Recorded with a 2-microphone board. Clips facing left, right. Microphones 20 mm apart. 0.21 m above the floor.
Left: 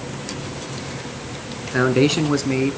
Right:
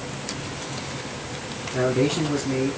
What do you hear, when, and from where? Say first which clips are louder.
1.6 s a man speaking: left 5 dB; 55° left (ahead or behind), 2 m; by 2.8 s 35° left (ahead or behind), 1.5 m